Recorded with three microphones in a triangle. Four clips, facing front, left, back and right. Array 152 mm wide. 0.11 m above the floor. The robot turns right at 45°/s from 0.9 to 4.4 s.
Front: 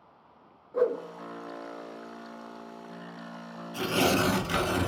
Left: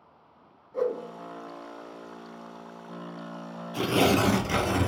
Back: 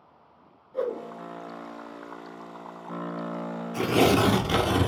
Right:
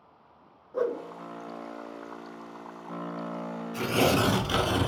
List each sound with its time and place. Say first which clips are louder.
0.7 s a whoosh: left 1 dB, front 3 dB; 50° right, 0.9 m; by 1.0 s 45° right, 0.9 m
3.7 s tearing paper: left 2 dB, back 5 dB; 135° left, 0.8 m; by 4.9 s 165° left, 0.8 m